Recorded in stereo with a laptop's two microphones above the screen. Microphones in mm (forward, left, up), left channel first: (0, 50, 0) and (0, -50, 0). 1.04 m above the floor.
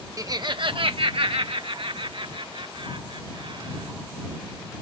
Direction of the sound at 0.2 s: 35° right (ahead or behind).